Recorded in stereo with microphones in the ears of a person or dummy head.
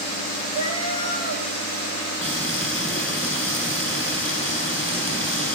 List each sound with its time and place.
0.5 s a cat meowing: 35° left (ahead or behind), 5.5 m
2.2 s frying: 15° left (ahead or behind), 9 m